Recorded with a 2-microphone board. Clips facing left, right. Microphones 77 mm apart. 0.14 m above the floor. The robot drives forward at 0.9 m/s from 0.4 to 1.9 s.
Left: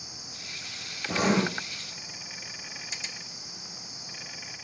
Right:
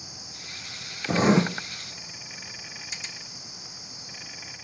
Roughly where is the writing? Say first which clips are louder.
Right 5 dB; right.